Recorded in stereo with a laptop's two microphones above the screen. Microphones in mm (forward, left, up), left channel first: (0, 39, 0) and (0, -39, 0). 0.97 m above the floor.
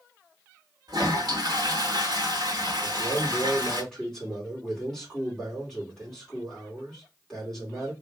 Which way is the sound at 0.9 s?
60° right (ahead or behind).